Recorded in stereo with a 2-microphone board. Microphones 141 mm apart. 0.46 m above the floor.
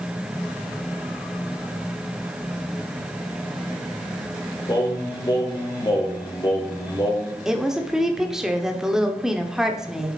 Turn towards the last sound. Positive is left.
turn(degrees=-5)  # may be behind; listen again after turning